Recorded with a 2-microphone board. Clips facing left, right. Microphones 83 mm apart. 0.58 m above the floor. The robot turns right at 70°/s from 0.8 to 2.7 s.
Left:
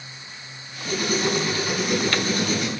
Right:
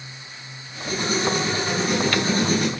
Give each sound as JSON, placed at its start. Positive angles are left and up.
{"t": 0.8, "sound": "writing", "azimuth_deg": 110, "distance_m": 5.0}